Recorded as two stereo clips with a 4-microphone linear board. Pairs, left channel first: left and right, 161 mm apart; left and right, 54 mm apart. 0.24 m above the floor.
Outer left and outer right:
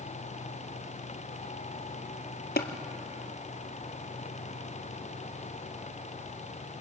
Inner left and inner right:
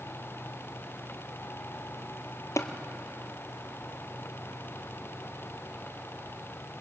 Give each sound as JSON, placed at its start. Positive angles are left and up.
{"t": 2.6, "sound": "tapping", "side_deg": 85, "distance_m": 1.0}